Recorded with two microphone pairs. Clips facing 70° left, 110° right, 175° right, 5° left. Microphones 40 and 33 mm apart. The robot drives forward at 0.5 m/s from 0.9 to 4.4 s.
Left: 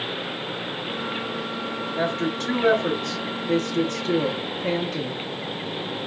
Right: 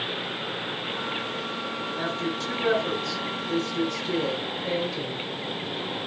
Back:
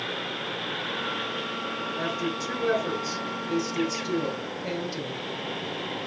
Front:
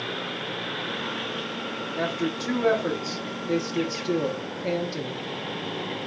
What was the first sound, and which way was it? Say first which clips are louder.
A woman speaking: left 6 dB, front 4 dB; 30° left.